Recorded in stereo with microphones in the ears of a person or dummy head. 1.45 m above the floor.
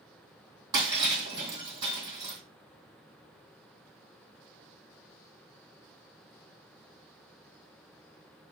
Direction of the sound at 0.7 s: 30° right (ahead or behind).